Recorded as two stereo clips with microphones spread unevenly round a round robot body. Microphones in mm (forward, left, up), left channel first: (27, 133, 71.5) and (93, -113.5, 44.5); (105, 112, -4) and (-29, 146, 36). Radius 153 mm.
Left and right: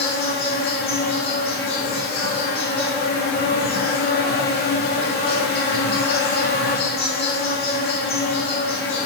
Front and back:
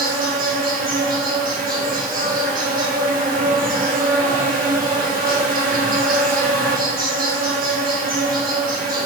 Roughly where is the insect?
Behind left.